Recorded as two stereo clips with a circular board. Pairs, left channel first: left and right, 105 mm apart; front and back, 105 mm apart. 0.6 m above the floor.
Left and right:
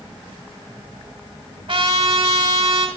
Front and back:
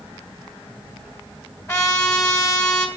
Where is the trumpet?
60° right, 1.5 m.